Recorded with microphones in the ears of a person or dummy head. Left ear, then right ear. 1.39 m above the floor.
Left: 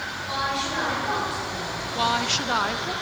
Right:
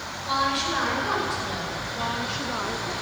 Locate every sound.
0.2 s a woman speaking: 20° right (ahead or behind), 5 m
1.9 s a woman speaking: 35° left (ahead or behind), 0.7 m